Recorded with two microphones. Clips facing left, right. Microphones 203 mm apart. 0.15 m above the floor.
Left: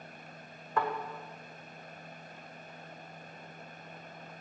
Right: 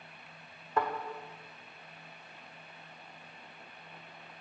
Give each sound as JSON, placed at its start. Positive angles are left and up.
{"t": 0.8, "sound": "a thud", "side_deg": -25, "distance_m": 1.6}